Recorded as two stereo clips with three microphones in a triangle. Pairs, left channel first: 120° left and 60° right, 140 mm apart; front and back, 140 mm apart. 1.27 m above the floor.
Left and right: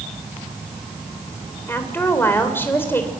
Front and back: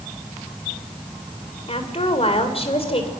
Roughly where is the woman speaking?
Ahead left.